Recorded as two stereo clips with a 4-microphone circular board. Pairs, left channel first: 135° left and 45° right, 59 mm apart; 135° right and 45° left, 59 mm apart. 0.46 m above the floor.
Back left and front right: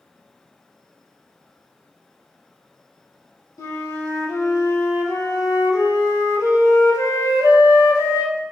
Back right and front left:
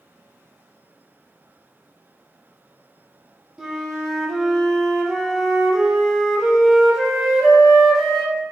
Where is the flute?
130° left, 0.7 m.